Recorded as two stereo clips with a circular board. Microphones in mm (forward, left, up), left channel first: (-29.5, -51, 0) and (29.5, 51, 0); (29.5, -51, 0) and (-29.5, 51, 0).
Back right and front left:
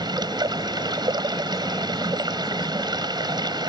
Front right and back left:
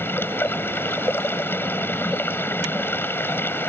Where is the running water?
10° left.